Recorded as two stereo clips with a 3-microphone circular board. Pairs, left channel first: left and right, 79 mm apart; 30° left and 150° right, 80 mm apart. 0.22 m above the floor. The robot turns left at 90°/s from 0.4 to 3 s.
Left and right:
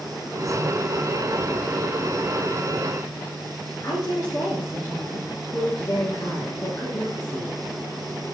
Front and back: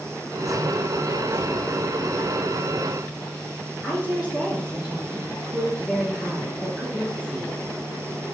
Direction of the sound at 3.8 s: 145° left.